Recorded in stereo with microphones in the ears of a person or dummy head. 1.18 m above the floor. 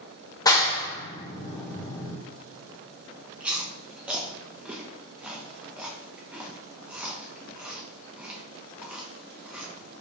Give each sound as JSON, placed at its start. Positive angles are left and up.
{"t": 0.5, "sound": "a clap", "side_deg": 15, "distance_m": 0.7}
{"t": 3.4, "sound": "chewing", "side_deg": -5, "distance_m": 0.7}